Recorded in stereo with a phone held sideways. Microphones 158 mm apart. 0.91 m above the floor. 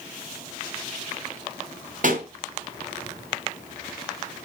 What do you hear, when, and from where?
2.0 s a pop: 60° right (ahead or behind), 2.0 m